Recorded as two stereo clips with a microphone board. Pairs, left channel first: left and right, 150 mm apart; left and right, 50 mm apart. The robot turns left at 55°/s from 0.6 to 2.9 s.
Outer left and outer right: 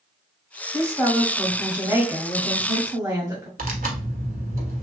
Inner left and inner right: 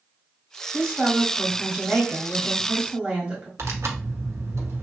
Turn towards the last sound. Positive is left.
turn(degrees=-70)  # may be behind; listen again after turning